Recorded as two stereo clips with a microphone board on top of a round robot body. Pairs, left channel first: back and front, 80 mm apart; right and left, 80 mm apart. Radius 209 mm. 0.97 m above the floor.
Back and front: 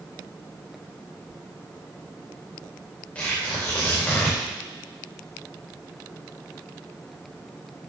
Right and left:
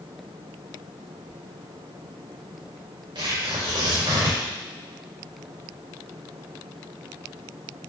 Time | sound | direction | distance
3.1 | tearing paper | 105° left | 4.5 m